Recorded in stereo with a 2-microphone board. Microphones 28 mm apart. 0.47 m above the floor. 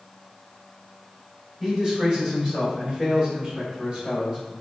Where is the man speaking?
20° right (ahead or behind), 1.9 m; by 4.5 s 30° right (ahead or behind), 1.6 m.